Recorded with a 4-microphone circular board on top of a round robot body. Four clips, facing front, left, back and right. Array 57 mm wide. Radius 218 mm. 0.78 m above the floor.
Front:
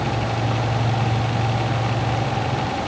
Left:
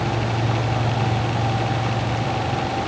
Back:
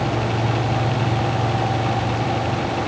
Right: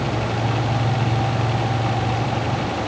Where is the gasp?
No gasp in this recording.